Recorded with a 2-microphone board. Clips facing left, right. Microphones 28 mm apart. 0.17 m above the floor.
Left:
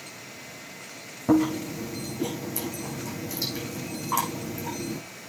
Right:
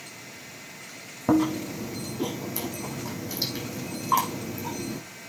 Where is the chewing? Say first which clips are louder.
Left 1 dB; 25° right (ahead or behind), 6 m.